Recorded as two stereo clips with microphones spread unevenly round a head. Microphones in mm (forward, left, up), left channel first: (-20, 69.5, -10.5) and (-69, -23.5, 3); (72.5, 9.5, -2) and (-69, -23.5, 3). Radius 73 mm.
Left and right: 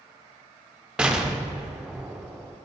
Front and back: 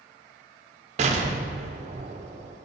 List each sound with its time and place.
1.0 s an explosion: 155° left, 0.6 m